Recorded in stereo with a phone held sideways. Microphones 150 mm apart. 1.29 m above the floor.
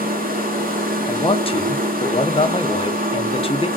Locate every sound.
0.0 s a machine running: 75° right (ahead or behind), 1.0 m
1.1 s a man speaking: 40° left (ahead or behind), 0.6 m